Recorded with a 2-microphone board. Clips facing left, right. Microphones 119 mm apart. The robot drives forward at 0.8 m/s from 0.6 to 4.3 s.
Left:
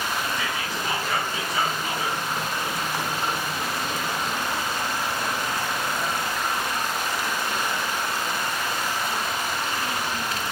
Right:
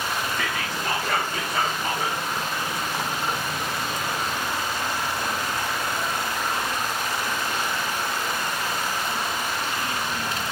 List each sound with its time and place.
0.4 s whispering: 55° right (ahead or behind), 2.5 m; by 2.2 s 40° right (ahead or behind), 3 m